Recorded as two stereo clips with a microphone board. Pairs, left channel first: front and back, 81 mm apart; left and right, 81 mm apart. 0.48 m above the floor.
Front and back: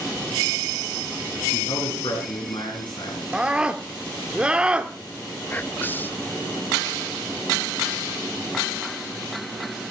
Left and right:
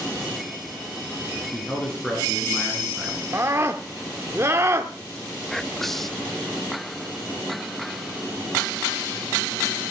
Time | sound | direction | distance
1.5 | a man speaking | 15° left | 5.5 m
3.3 | a scream | 110° right | 1.1 m
5.5 | whispering | 10° left | 0.7 m